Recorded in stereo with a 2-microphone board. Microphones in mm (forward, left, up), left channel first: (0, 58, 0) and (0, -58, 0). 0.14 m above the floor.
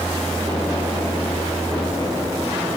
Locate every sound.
Only background noise.